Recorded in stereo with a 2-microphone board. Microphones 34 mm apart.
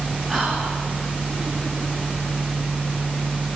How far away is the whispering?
About 1.0 m.